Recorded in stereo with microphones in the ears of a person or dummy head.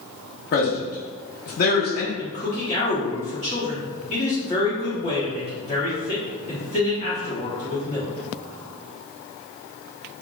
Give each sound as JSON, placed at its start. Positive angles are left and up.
{"t": 0.5, "sound": "a man speaking", "side_deg": 45, "distance_m": 0.8}
{"t": 2.2, "sound": "a man speaking", "side_deg": 40, "distance_m": 1.1}